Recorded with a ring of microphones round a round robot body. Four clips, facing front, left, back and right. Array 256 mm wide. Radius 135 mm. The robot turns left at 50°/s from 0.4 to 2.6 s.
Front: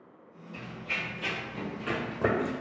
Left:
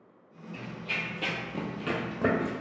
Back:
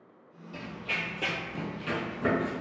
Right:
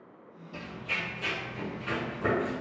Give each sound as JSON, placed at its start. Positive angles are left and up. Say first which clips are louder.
{"t": 0.5, "sound": "running footsteps", "louder": "even, back 2 dB", "azimuth_deg": -130, "distance_m": 0.8}